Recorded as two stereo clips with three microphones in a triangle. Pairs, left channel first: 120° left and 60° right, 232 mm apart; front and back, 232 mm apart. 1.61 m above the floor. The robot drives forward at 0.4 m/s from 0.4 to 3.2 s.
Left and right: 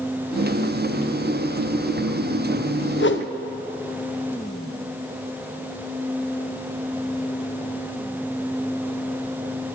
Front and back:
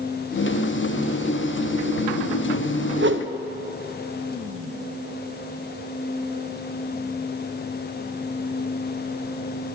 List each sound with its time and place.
3.0 s a whoosh: 150° left, 0.7 m